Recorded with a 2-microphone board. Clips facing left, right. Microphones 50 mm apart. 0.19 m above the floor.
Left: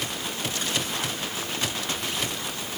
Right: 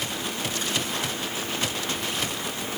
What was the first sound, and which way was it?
Only background noise.